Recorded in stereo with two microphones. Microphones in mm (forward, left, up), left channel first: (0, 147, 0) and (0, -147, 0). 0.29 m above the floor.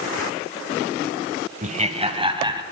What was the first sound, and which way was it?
Laughter, 25° right (ahead or behind).